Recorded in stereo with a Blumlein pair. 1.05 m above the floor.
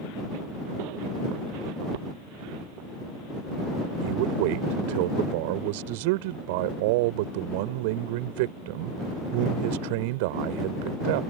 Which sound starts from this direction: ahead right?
A man speaking, at 4.0 s.